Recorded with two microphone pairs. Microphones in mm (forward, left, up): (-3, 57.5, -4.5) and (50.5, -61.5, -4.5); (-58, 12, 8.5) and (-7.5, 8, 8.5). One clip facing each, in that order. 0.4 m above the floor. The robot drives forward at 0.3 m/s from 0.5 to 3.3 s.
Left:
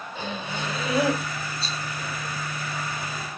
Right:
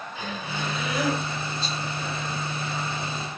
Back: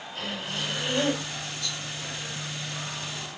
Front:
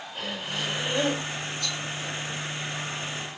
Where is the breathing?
60° left, 1.1 m; by 1.2 s 75° left, 1.1 m.